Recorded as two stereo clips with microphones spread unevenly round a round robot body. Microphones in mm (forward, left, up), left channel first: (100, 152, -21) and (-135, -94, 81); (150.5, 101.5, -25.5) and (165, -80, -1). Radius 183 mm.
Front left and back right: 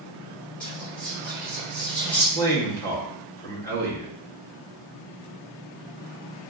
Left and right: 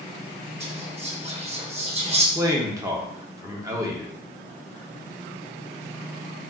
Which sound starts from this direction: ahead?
A man speaking, at 2.4 s.